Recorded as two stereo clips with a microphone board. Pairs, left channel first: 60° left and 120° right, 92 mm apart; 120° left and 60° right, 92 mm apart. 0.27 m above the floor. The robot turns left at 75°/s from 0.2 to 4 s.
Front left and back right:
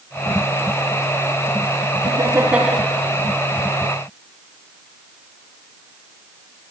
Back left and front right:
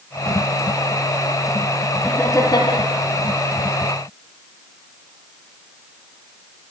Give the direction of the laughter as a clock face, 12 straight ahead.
5 o'clock.